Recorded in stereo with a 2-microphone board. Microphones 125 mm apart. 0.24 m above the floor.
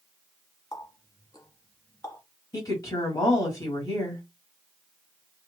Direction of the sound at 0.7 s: 30° left (ahead or behind).